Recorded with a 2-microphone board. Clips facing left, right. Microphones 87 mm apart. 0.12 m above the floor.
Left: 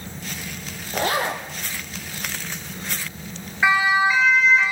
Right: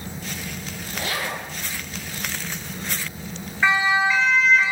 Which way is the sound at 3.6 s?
10° left (ahead or behind).